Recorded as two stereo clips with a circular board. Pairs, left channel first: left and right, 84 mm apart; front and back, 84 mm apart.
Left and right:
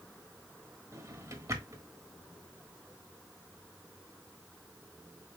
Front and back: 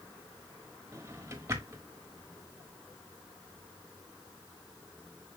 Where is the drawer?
130° right, 1.3 m.